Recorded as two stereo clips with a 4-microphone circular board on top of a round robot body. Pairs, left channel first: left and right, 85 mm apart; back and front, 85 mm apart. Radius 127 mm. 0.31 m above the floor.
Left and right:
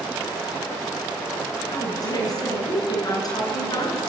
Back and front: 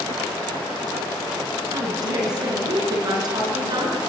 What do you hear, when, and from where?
1.7 s a woman speaking: 45° left, 6 m